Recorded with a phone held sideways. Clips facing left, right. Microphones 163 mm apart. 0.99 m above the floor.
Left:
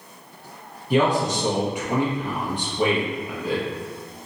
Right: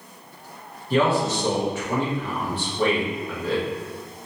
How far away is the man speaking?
About 1.3 m.